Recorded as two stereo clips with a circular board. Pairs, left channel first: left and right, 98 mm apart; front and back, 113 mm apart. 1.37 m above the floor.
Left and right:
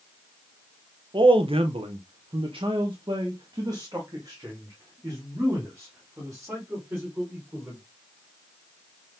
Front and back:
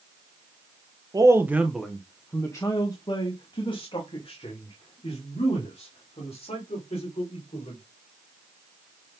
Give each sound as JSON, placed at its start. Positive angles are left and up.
{"t": 1.1, "sound": "a man speaking", "azimuth_deg": -125, "distance_m": 1.0}